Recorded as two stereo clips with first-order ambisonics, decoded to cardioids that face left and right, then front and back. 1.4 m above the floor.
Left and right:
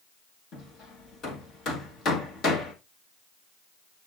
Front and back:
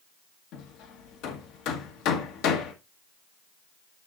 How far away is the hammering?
About 1.5 m.